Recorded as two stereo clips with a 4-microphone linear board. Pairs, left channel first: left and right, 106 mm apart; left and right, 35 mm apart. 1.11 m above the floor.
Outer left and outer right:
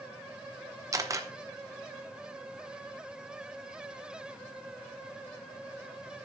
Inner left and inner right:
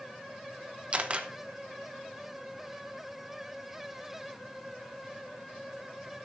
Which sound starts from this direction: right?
A camera shutter, at 0.9 s.